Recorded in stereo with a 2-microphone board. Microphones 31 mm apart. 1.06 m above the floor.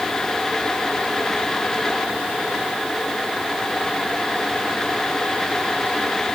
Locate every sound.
Only background noise.